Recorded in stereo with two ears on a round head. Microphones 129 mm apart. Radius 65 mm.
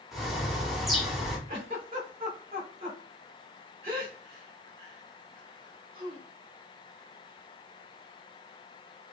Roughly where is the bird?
Centre.